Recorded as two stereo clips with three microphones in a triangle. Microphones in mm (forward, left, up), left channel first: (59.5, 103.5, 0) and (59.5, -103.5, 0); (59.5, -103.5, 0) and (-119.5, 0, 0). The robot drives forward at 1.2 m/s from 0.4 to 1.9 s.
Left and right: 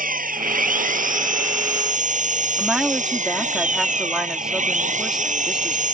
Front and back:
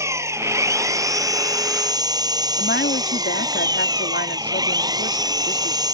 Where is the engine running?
135° right; by 6.0 s 140° right.